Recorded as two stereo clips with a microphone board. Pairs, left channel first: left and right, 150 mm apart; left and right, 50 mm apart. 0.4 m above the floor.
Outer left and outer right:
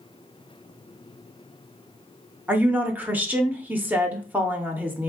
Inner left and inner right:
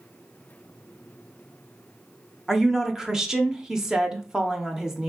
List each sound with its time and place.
2.5 s a woman speaking: 10° right (ahead or behind), 0.8 m